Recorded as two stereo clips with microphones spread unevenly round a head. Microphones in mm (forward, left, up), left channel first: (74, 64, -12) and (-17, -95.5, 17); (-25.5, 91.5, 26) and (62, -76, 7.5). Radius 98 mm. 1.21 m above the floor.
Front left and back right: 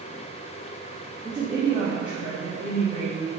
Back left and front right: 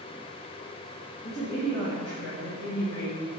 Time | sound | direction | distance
1.2 | a woman speaking | 145° left | 2.0 m